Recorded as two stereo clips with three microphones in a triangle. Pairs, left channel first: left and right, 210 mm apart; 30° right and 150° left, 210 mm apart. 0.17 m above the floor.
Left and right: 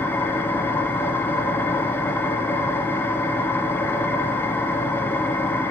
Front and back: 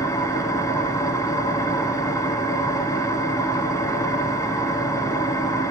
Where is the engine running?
20° left, 0.8 m.